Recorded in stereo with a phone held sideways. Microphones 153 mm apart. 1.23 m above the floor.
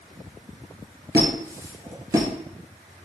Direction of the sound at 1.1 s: 20° right (ahead or behind).